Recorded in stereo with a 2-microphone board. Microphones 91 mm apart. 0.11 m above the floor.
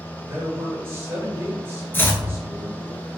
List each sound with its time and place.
0.2 s a man speaking: 30° right (ahead or behind), 1.9 m
1.9 s chopping: 25° left (ahead or behind), 0.6 m